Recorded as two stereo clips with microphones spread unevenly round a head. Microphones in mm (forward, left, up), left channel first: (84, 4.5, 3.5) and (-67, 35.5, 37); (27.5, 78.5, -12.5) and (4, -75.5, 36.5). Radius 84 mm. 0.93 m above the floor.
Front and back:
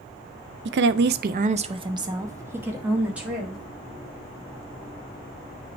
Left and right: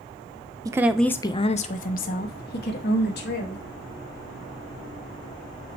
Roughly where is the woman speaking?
Behind.